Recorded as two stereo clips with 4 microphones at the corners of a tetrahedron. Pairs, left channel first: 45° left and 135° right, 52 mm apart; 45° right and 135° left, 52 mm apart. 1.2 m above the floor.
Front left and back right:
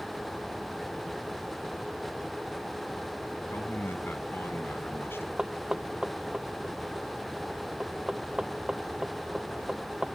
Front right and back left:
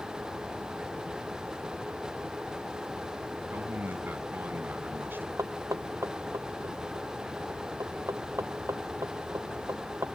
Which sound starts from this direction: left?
A man speaking, at 3.5 s.